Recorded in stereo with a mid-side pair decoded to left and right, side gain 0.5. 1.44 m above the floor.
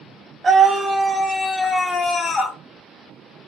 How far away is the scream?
About 1.1 m.